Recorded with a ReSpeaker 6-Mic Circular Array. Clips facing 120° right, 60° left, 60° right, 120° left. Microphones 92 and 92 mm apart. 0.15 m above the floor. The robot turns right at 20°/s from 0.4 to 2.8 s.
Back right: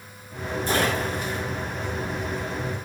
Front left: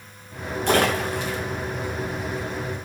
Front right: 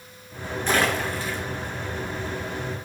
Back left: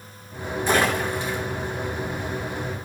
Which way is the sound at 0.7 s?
40° left.